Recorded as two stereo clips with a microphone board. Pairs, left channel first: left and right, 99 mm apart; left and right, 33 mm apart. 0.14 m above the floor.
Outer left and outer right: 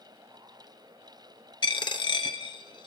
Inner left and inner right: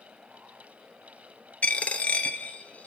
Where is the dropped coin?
55° left (ahead or behind), 0.5 m.